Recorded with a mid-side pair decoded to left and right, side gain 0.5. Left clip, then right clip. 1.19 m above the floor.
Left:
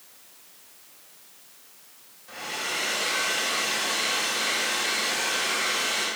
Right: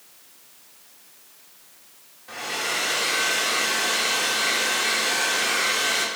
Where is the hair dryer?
35° right, 3 m.